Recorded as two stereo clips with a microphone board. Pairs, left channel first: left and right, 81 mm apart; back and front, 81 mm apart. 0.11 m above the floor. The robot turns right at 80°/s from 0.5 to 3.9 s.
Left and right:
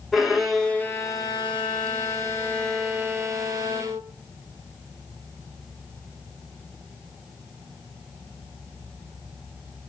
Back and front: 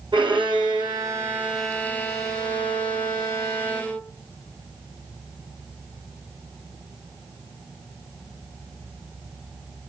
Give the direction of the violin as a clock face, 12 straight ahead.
12 o'clock.